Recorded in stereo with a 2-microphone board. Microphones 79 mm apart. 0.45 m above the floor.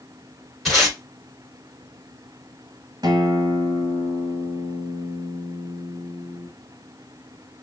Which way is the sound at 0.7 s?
Centre (ahead or behind).